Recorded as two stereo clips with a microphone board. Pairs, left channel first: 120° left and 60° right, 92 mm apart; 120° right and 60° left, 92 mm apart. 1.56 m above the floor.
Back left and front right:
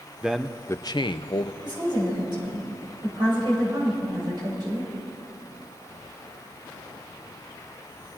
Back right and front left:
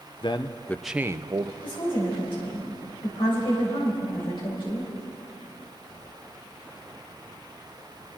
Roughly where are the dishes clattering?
I don't hear dishes clattering.